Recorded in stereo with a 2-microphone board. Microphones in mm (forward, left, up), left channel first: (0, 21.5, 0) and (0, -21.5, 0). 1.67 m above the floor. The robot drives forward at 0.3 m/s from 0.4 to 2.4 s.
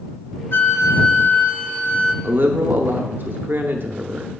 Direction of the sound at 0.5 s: 60° left (ahead or behind).